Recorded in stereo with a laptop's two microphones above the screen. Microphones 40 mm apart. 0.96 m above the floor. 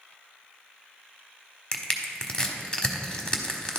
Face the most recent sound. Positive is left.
turn(degrees=20)  # may be behind; listen again after turning